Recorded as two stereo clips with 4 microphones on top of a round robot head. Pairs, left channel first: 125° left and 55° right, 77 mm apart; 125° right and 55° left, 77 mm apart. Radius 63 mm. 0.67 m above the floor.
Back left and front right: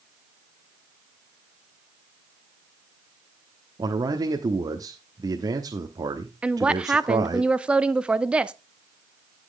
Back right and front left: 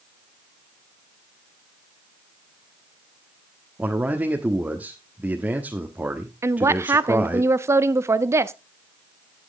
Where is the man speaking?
15° right, 1.2 m.